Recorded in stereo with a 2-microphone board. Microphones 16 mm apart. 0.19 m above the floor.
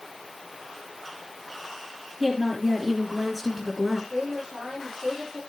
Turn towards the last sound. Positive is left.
turn(degrees=-60)  # may be behind; listen again after turning